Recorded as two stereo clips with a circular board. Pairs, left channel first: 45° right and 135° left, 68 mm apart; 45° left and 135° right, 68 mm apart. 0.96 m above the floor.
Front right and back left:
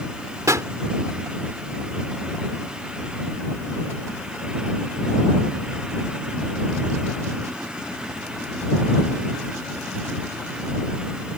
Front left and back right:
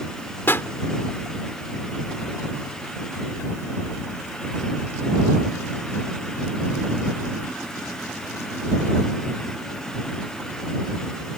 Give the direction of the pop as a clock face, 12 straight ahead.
9 o'clock.